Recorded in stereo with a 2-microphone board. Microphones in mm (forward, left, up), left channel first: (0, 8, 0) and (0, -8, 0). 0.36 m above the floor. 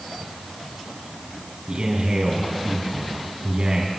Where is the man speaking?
60° right (ahead or behind), 3 m.